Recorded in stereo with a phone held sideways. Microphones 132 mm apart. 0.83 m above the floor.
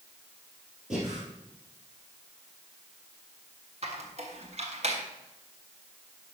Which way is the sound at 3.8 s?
55° right (ahead or behind).